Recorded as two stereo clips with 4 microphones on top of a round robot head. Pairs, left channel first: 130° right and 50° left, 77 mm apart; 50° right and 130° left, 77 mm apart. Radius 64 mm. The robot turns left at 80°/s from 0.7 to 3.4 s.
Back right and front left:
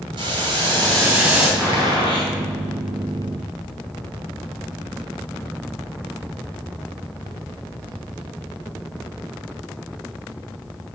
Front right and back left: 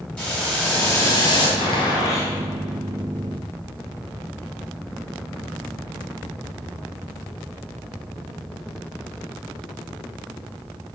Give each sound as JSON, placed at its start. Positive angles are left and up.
{"t": 0.2, "sound": "boiling", "azimuth_deg": 25, "distance_m": 5.5}
{"t": 1.6, "sound": "a gunshot", "azimuth_deg": -60, "distance_m": 4.5}